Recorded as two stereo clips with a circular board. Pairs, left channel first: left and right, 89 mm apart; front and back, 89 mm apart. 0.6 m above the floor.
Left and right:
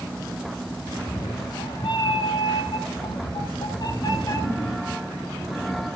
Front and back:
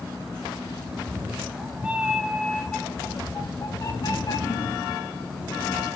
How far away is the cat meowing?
About 1.6 m.